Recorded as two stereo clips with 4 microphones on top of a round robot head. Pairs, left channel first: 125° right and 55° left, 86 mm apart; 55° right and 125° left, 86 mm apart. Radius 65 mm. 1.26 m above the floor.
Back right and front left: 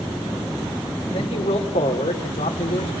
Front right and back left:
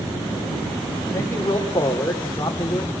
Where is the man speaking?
120° right, 3 m.